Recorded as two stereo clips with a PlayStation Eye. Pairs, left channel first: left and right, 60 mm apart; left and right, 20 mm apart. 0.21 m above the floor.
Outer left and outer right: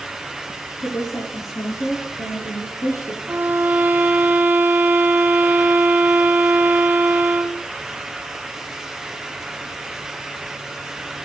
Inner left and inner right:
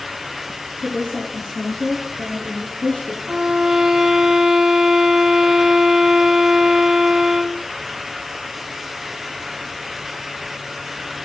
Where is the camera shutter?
I don't hear a camera shutter.